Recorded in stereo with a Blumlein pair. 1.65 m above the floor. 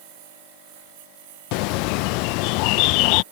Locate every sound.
0.0 s a lawn mower: 50° right
1.5 s a bird: 45° left